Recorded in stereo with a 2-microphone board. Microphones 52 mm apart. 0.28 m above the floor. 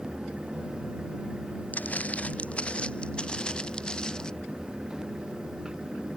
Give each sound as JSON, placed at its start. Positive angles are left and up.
{"t": 1.7, "sound": "footsteps", "side_deg": 30}